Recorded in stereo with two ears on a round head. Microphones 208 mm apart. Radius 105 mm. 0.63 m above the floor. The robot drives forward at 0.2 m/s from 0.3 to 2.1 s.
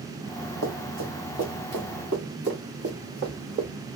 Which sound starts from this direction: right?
Running footsteps, at 0.6 s.